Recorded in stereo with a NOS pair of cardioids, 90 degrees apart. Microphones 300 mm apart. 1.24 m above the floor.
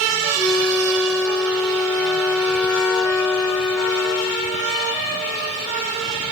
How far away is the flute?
About 1.1 m.